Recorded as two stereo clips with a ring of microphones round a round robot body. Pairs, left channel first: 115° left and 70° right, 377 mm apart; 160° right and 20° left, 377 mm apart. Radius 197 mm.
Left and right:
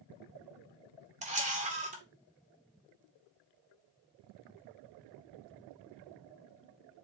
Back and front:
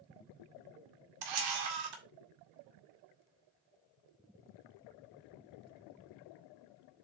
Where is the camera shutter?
5° left, 2 m.